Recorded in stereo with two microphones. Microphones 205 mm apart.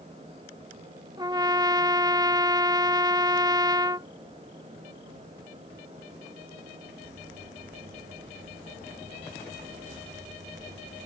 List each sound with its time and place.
1.2 s a trumpet: 20° right (ahead or behind)